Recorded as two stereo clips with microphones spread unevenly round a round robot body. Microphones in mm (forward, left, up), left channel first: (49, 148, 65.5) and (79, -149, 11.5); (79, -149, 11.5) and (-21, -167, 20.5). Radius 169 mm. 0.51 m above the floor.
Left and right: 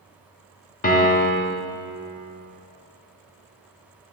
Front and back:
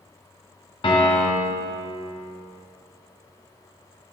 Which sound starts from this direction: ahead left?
A piano, at 0.8 s.